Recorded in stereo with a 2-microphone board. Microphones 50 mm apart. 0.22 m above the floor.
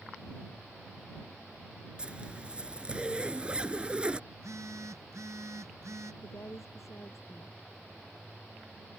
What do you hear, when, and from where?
2.0 s a zipper: 20° right (ahead or behind)
4.3 s a phone buzzing: 85° right
6.2 s a woman speaking: 75° left (ahead or behind)